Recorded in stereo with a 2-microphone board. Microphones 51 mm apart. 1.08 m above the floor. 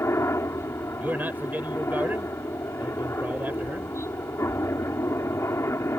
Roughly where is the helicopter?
Left.